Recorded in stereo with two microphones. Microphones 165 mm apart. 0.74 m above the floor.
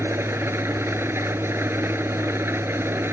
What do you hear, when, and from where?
0.0 s an engine running: 15° right (ahead or behind)